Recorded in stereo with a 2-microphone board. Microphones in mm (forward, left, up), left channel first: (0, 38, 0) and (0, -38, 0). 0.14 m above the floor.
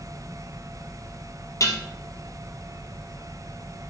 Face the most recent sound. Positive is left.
turn(degrees=45)  # may be behind; listen again after turning